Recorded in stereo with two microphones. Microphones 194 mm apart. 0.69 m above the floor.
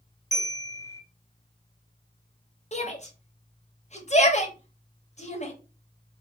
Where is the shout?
35° left (ahead or behind), 0.7 m.